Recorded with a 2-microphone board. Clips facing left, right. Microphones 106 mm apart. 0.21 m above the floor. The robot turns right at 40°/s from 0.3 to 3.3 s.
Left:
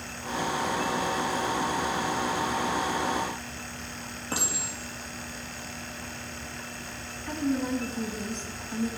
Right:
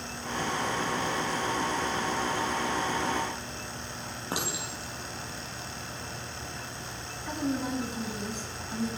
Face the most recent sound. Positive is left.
turn(degrees=-10)  # may be behind; listen again after turning